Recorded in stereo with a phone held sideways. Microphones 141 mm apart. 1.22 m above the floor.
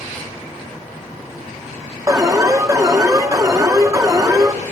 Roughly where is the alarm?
Right.